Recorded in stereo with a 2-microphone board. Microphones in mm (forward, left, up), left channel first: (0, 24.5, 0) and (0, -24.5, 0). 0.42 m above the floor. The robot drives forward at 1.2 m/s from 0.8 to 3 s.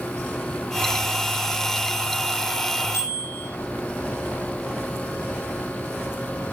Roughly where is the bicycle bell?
Left.